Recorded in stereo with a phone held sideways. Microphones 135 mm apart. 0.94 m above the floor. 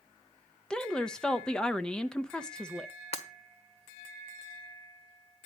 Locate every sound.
0.7 s a woman speaking: 5° left (ahead or behind), 0.6 m
3.1 s breaking glass: 50° left (ahead or behind), 1.4 m